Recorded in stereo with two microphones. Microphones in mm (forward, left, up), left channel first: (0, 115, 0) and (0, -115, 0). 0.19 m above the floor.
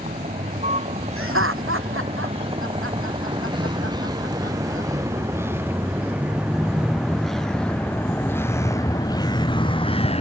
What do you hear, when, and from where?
0.0 s a vehicle: 30° right (ahead or behind); by 10.2 s 25° left (ahead or behind)
1.2 s laughter: 65° right (ahead or behind)